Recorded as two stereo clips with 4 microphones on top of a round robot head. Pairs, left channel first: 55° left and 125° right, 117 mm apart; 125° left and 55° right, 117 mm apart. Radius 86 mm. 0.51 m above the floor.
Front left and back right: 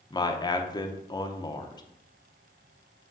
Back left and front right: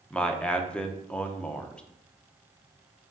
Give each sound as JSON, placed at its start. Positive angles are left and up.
{"t": 0.1, "sound": "a man speaking", "azimuth_deg": 50, "distance_m": 0.9}